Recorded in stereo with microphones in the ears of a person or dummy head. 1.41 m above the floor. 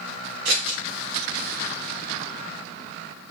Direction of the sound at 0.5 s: 60° right (ahead or behind).